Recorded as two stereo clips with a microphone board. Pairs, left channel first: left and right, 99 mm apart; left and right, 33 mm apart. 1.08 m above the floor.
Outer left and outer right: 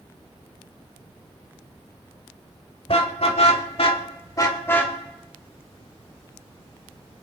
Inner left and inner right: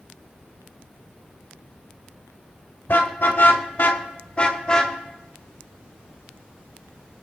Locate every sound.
2.9 s a car horn: 65° left (ahead or behind), 2 m; by 5.0 s 15° left (ahead or behind), 2.5 m